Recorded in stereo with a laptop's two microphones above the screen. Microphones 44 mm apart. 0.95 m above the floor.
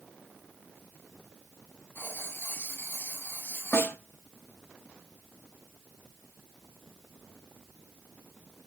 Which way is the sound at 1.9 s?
50° left (ahead or behind).